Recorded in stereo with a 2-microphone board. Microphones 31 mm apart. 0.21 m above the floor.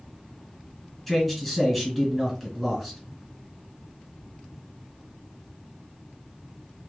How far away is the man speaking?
About 2.5 m.